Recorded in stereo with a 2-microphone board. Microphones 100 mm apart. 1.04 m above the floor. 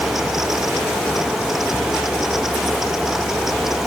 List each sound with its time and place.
Only background noise.